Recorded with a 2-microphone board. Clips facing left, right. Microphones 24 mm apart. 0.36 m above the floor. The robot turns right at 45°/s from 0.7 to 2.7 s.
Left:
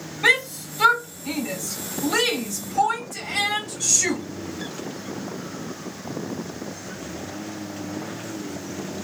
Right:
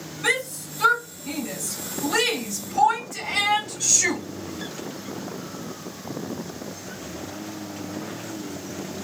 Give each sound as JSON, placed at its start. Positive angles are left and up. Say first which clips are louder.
{"t": 0.2, "sound": "a shout", "louder": "left 5 dB", "side_deg": 55, "distance_m": 2.5}